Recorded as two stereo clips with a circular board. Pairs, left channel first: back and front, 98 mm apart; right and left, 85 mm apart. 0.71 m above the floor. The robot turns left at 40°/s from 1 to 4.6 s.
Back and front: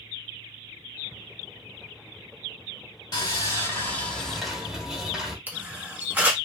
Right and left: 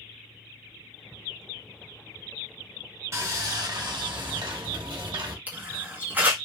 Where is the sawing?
140° left, 1.1 m; by 5.4 s 80° left, 1.1 m.